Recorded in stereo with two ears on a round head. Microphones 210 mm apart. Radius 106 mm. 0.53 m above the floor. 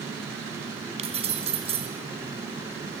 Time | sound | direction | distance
1.0 | keys jangling | 30° right (ahead or behind) | 3.5 m